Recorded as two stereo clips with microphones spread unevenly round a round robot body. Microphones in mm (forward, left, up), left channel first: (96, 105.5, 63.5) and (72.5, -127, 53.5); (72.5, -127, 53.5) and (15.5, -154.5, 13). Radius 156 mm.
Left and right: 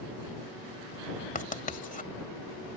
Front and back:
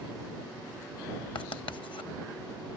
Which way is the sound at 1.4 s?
30° left.